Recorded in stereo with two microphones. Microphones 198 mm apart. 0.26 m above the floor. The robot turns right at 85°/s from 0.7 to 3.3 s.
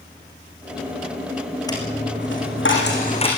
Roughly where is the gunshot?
No gunshot in this recording.